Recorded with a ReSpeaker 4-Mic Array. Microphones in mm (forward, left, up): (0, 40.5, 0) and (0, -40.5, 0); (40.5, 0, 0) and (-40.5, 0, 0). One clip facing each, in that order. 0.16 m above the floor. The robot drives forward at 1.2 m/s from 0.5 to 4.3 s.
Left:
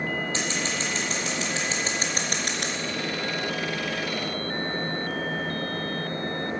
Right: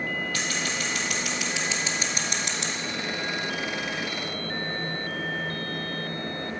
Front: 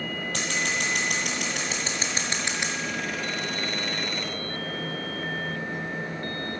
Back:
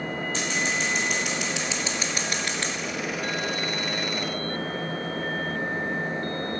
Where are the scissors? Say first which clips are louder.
Left 1 dB, even; 25° left, 3.5 m; by 2.7 s 75° left, 1.6 m.